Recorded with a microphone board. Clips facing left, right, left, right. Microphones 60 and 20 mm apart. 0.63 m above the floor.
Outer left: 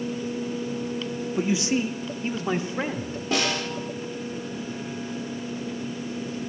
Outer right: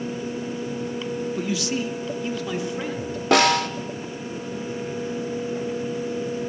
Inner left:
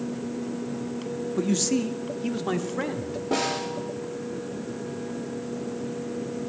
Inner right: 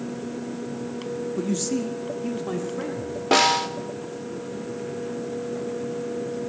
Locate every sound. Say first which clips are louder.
1.4 s a man speaking: outer left 6 dB, inner left 3 dB; 20° left (ahead or behind), 0.7 m; by 3.2 s 35° left (ahead or behind), 1.6 m
3.3 s a snare drum: outer right 9 dB, inner right 8 dB; 75° right (ahead or behind), 1.0 m